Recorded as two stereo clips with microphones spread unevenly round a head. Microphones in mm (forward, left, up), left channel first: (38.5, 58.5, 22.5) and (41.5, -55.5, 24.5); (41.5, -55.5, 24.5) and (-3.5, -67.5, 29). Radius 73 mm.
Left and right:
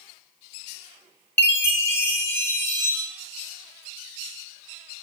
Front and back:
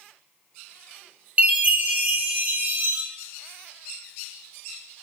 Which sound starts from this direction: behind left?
A chime, at 1.4 s.